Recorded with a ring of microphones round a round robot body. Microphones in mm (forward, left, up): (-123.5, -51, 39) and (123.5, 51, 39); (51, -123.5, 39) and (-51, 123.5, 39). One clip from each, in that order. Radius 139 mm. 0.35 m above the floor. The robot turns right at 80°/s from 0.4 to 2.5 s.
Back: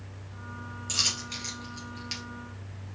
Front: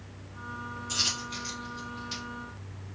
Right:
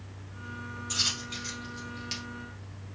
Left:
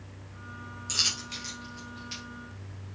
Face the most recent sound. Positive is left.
turn(degrees=-95)